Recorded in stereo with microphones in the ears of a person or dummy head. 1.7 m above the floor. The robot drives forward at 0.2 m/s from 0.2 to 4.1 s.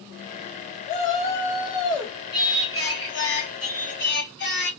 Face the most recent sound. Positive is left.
turn(degrees=60)  # may be behind; listen again after turning